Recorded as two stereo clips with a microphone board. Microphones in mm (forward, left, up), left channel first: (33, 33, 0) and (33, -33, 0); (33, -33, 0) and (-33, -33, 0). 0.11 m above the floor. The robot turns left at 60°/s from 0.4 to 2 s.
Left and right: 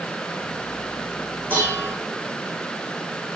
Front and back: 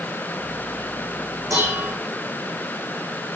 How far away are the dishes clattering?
About 4 m.